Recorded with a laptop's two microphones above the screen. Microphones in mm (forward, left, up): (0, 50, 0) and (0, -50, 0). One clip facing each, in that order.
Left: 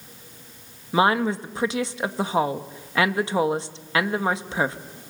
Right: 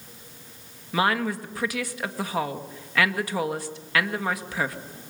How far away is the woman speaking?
About 1.5 m.